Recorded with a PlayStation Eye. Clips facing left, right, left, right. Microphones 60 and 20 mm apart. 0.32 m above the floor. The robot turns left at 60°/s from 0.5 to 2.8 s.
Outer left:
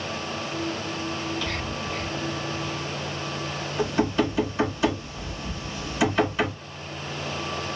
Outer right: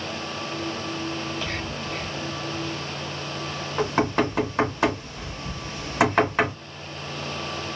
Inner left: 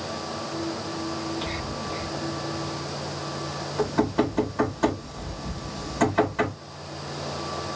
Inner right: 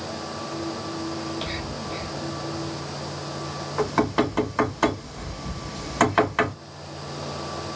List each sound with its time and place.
1.2 s whispering: 30° right (ahead or behind), 1.7 m; by 2.2 s 35° right (ahead or behind), 1.7 m
3.8 s knocking: 70° right (ahead or behind), 2.0 m